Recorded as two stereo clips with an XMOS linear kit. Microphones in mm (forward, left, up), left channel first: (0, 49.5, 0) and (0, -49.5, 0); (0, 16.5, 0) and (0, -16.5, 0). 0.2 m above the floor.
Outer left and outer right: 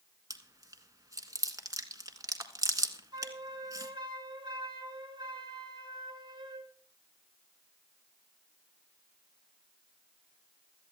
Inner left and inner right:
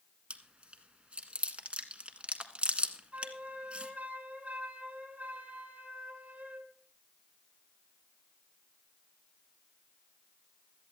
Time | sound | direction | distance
0.3 | chewing | 35° right (ahead or behind) | 1.6 m
3.1 | a flute | 50° right (ahead or behind) | 2.5 m